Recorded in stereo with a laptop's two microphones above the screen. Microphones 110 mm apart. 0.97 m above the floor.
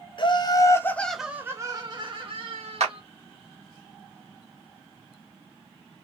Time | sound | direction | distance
0.2 | laughter | 45° left (ahead or behind) | 0.9 m
2.8 | a clap | 85° right | 1.4 m